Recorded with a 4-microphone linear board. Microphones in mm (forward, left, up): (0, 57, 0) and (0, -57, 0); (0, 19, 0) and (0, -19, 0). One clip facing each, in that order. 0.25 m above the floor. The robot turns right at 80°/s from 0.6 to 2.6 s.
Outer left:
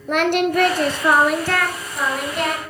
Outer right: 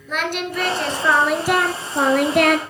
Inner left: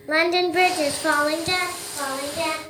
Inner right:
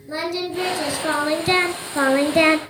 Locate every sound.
0.1 s singing: 125° left, 0.6 m; by 2.6 s 75° right, 0.6 m